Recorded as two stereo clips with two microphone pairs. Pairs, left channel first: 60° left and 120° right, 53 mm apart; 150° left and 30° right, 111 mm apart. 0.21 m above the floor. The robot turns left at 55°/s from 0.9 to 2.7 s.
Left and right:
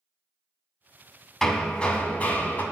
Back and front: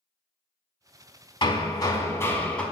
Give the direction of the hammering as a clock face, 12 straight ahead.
8 o'clock.